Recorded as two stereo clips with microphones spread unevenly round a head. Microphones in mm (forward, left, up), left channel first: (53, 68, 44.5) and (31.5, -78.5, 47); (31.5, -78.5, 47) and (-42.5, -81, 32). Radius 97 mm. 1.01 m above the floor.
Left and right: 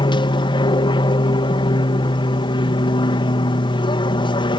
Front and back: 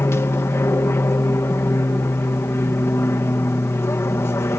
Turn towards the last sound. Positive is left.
turn(degrees=50)